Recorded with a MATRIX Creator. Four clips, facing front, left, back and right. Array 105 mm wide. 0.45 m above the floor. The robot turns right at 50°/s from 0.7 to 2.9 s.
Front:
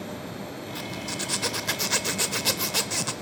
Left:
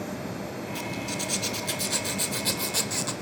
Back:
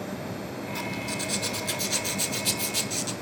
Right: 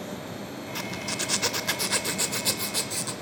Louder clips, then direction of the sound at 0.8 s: Right 1 dB, back 1 dB; 95° right.